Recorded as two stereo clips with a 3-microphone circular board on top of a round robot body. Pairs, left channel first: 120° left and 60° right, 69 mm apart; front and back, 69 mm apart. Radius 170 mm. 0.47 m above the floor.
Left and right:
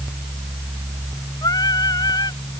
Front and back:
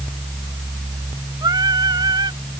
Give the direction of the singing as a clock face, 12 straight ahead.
7 o'clock.